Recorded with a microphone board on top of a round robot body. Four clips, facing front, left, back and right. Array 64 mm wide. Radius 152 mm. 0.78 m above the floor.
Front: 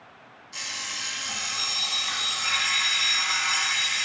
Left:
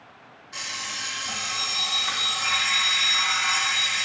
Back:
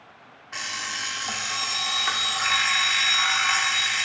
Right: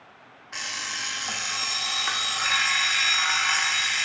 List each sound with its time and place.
0.5 s an alarm clock: 140° right, 0.6 m